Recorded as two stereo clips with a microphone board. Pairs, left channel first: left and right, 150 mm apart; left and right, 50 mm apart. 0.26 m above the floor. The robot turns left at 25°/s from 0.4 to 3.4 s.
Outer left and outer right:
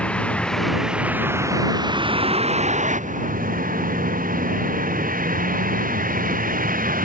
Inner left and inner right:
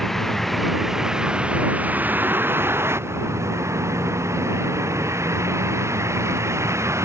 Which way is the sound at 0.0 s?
5° left.